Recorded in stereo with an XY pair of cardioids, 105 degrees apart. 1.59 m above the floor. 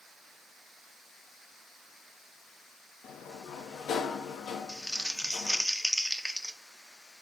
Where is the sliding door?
70° left, 1.0 m.